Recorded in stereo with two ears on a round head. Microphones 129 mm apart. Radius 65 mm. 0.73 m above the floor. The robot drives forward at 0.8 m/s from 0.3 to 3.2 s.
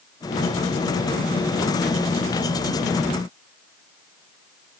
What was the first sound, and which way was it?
Only background noise.